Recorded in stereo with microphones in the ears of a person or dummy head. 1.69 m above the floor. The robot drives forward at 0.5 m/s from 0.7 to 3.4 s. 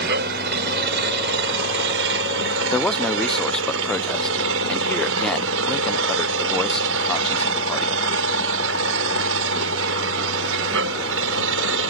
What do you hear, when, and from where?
0.0 s an engine running: 50° right (ahead or behind); by 11.9 s 65° right (ahead or behind)
2.7 s a man speaking: 5° left (ahead or behind)